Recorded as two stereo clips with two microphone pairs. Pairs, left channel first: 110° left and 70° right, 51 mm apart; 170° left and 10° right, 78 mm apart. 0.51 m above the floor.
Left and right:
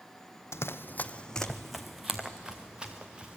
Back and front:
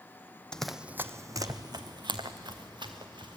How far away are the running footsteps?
About 0.9 m.